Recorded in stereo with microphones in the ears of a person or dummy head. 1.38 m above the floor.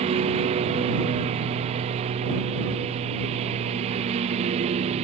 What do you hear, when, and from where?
0.0 s a lawn mower: 35° right (ahead or behind)